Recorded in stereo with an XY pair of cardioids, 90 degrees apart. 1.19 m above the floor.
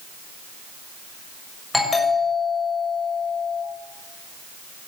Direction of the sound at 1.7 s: 20° left.